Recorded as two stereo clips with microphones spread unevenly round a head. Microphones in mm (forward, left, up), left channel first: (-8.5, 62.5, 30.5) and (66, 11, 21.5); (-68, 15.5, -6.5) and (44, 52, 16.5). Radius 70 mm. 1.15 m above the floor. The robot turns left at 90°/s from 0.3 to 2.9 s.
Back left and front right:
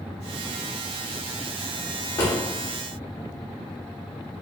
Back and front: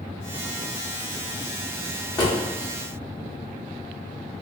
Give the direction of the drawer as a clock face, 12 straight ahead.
7 o'clock.